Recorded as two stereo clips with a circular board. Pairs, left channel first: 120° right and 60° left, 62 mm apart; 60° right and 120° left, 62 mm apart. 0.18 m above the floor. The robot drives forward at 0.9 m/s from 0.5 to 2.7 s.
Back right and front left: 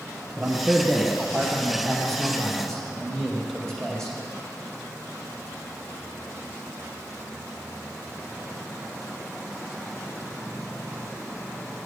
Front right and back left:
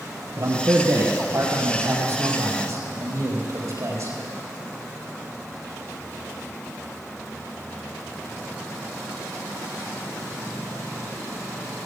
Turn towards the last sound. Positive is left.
turn(degrees=155)